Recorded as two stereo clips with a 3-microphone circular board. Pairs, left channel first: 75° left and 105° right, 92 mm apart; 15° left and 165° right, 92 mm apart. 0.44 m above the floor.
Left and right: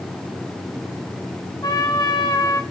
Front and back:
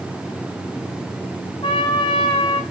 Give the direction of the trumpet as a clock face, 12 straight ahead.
11 o'clock.